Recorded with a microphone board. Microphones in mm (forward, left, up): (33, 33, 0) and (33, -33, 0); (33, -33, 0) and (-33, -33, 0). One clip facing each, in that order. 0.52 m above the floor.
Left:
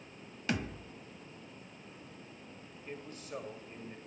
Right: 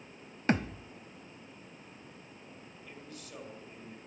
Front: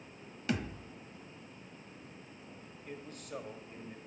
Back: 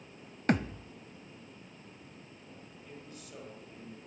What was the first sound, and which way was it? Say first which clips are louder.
A thud: right 6 dB, back 6 dB; 140° right.